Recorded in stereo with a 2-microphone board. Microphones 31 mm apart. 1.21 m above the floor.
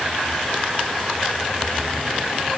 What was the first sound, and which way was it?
Only background noise.